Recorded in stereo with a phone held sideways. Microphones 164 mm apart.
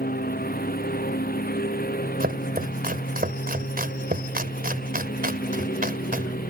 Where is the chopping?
60° right (ahead or behind).